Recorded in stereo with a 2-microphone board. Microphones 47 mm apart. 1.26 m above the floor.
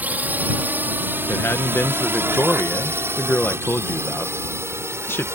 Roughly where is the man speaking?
Left.